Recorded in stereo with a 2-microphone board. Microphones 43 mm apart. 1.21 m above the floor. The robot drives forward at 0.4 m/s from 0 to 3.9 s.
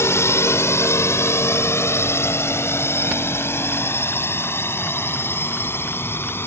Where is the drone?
80° left; by 6.5 s 60° left (ahead or behind).